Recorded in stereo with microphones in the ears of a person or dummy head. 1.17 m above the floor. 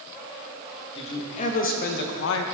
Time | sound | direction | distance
0.9 | a man speaking | 30° left (ahead or behind) | 1.2 m